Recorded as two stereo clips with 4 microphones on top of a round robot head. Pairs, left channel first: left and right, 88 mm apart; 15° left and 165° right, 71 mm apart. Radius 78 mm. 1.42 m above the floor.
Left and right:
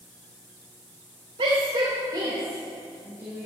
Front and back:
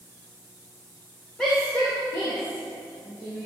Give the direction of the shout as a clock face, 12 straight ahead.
2 o'clock.